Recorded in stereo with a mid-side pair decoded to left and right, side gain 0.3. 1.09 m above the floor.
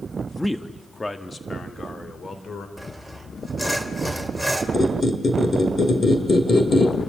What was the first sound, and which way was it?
A man speaking, 5° left.